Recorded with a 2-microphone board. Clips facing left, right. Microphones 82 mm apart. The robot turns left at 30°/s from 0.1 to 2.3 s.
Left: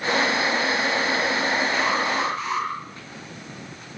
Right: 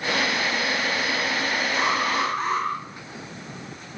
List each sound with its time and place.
1.7 s an alarm: 30° right (ahead or behind), 7.5 m; by 2.7 s 50° right (ahead or behind), 7.5 m